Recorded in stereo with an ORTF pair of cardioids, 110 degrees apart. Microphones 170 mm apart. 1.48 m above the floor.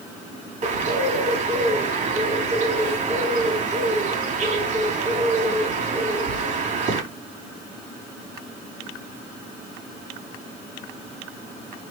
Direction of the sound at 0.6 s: 55° right.